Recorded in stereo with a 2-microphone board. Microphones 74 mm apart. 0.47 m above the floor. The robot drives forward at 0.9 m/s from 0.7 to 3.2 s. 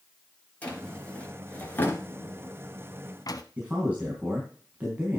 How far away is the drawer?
About 3 m.